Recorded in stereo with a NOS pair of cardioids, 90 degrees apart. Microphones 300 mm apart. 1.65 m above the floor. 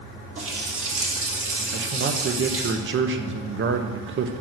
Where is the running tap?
45° right, 2 m.